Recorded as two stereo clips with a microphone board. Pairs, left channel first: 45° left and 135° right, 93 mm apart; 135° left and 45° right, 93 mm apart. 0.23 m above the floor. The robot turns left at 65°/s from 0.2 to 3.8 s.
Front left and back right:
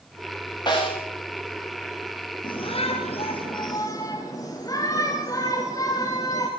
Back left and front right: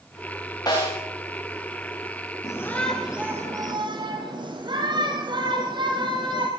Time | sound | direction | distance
0.7 | a snare drum | 85° left | 8.5 m
2.4 | a shout | 85° left | 3.5 m